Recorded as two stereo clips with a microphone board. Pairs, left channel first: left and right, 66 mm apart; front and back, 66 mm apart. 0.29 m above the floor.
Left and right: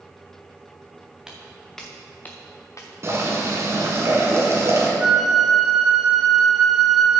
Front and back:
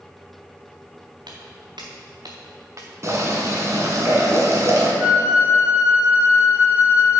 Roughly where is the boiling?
Behind right.